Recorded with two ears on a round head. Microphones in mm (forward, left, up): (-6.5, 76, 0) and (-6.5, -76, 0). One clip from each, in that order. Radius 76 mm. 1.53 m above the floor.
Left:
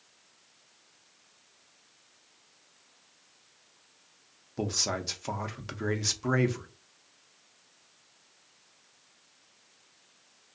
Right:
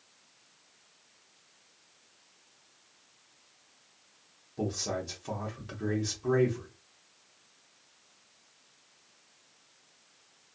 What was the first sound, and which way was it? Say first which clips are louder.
A man speaking: left 3 dB; 55° left (ahead or behind).